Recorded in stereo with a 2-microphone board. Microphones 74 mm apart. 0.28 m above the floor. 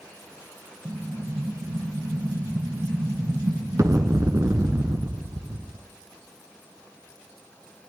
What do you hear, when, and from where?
0.8 s an explosion: 50° right (ahead or behind), 1.0 m